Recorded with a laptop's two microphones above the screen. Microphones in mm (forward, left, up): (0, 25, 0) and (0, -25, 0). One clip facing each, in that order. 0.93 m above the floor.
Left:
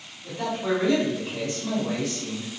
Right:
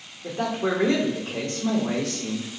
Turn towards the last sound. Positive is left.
turn(degrees=-70)  # may be behind; listen again after turning